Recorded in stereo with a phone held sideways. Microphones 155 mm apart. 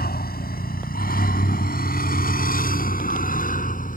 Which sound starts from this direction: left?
A vehicle, at 0.0 s.